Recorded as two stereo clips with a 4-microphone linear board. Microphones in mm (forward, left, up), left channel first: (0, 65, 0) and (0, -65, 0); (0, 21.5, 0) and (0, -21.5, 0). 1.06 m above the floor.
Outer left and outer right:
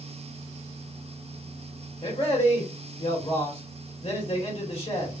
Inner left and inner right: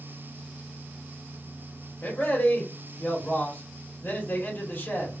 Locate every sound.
2.0 s a man speaking: 55° left (ahead or behind), 1.8 m